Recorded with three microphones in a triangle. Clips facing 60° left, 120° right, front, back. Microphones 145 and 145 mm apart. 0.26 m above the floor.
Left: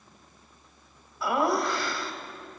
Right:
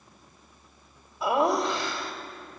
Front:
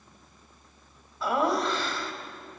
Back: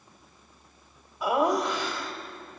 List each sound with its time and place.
1.2 s laughter: 135° right, 1.3 m